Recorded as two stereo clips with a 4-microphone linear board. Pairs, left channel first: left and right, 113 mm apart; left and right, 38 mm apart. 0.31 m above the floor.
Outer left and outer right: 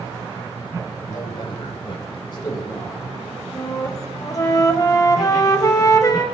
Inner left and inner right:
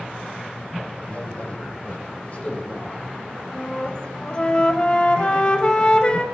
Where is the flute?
30° left (ahead or behind), 0.8 m.